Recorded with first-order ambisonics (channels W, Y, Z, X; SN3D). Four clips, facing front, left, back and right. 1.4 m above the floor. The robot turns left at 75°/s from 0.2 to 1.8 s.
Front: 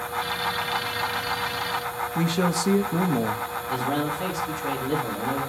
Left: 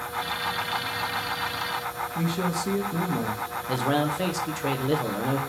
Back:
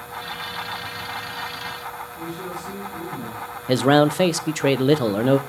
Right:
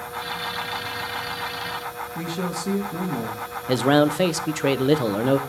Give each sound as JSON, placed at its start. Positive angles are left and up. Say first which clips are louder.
{"t": 2.1, "sound": "a man speaking", "louder": "left 1 dB, front 8 dB", "azimuth_deg": 0, "distance_m": 1.3}
{"t": 3.7, "sound": "a man speaking", "louder": "right 7 dB, back 11 dB", "azimuth_deg": -150, "distance_m": 0.9}